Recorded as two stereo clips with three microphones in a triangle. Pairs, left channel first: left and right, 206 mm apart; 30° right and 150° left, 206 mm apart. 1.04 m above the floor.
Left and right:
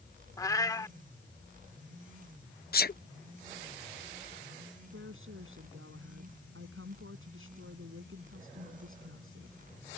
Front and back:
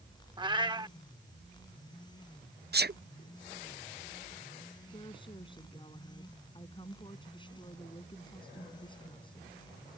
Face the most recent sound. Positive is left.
turn(degrees=-95)